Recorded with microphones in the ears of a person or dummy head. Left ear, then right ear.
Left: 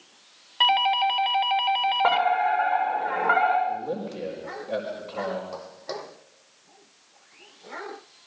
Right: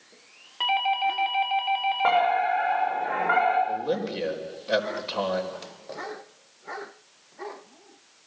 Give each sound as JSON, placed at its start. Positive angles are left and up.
{"t": 0.6, "sound": "a doorbell", "side_deg": 35, "distance_m": 1.4}
{"t": 2.0, "sound": "a fire alarm", "side_deg": 20, "distance_m": 7.0}
{"t": 3.7, "sound": "a man speaking", "side_deg": -55, "distance_m": 4.5}
{"t": 5.5, "sound": "footsteps", "side_deg": 65, "distance_m": 3.0}